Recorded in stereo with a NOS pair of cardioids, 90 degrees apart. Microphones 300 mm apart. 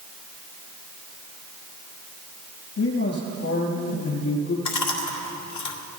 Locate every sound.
2.8 s a man speaking: 55° left, 6 m
4.7 s chewing: 65° left, 2.5 m